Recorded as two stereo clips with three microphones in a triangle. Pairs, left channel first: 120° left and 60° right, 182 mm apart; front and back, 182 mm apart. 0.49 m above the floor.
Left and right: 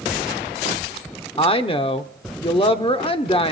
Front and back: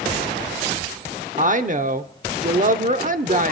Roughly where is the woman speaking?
Behind.